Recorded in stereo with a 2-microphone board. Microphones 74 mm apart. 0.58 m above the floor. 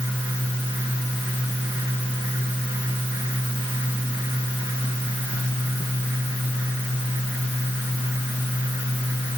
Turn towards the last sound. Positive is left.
No sound to turn to.